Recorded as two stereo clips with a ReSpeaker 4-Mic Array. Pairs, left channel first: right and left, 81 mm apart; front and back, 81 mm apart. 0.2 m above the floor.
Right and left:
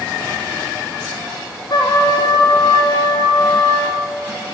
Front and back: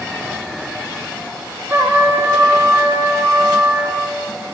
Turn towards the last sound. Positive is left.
turn(degrees=-115)